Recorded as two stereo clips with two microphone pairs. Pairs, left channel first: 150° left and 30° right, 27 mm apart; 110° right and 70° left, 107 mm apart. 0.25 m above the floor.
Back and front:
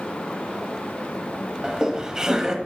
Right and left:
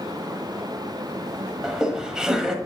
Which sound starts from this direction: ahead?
Laughter, at 1.6 s.